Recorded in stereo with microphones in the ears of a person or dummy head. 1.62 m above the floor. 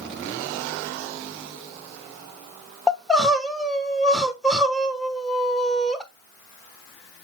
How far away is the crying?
About 1.1 m.